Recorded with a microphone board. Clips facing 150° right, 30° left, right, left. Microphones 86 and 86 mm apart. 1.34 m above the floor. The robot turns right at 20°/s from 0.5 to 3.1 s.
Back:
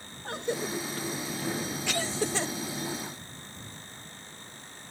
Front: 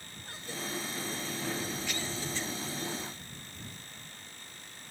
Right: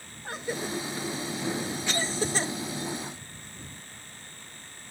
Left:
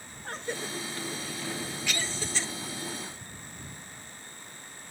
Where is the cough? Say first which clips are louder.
Back 9 dB, right 3 dB; 175° right; by 2.5 s 135° right.